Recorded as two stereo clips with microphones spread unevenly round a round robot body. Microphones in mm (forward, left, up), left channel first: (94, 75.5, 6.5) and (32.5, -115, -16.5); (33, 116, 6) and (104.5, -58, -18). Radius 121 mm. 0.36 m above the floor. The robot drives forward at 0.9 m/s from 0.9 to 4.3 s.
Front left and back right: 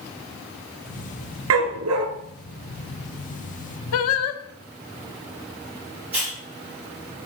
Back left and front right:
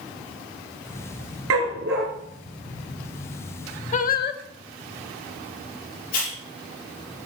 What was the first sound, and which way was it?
A dog barking, 105° right.